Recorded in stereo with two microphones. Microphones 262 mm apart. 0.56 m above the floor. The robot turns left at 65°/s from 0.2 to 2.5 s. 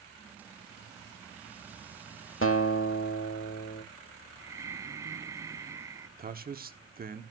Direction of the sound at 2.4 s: 55° left (ahead or behind).